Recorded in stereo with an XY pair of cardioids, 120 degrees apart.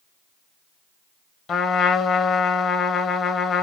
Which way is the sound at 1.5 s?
40° left.